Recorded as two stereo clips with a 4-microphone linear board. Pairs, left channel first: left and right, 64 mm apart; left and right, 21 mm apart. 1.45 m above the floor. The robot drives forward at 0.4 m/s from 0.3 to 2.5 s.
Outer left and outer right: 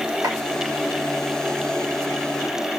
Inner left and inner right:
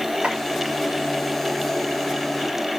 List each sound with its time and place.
0.2 s chopping: 65° right (ahead or behind), 6 m